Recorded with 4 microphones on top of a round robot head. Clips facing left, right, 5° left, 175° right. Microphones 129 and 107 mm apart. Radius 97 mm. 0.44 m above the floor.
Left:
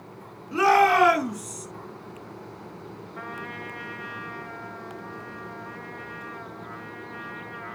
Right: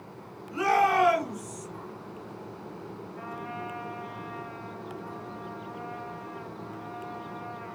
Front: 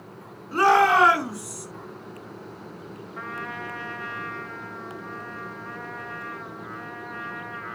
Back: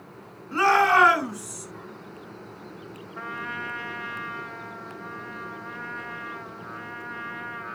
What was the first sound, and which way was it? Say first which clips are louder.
A shout: left 5 dB, front 2 dB; 80° left.